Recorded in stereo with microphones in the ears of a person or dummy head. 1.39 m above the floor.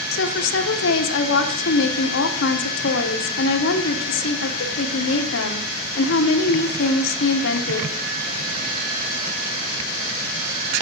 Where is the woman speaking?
65° left (ahead or behind), 1.2 m.